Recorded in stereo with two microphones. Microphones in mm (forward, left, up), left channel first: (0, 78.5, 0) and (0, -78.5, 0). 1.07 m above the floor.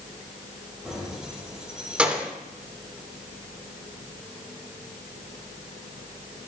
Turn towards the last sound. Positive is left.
turn(degrees=-10)  # may be behind; listen again after turning